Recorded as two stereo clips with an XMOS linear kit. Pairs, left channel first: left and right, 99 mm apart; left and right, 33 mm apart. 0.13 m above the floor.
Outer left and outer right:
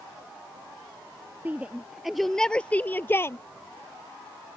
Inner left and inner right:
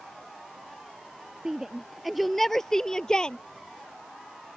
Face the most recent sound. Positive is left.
turn(degrees=25)  # may be behind; listen again after turning